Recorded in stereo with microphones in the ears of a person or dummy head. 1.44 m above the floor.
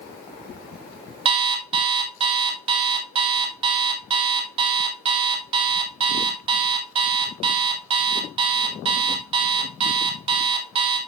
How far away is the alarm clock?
About 1.1 m.